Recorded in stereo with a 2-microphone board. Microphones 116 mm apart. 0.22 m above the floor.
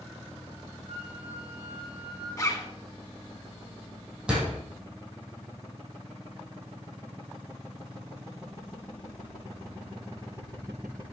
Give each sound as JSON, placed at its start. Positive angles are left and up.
{"t": 0.9, "sound": "a flute", "side_deg": -60, "distance_m": 6.0}
{"t": 2.4, "sound": "a zipper", "side_deg": 25, "distance_m": 2.0}
{"t": 4.3, "sound": "a door slam", "side_deg": -10, "distance_m": 5.5}